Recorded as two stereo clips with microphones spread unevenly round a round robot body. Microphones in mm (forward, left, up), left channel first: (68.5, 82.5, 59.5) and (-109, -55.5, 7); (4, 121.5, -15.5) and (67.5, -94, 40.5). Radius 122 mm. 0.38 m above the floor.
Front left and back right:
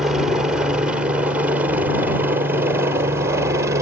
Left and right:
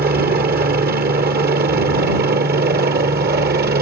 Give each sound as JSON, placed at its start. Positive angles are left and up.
{"t": 0.0, "sound": "a helicopter", "azimuth_deg": -85}